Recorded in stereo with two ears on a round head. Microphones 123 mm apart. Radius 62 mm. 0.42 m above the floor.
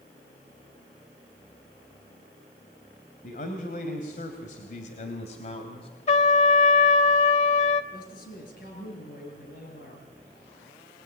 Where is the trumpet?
50° left (ahead or behind), 1.6 m.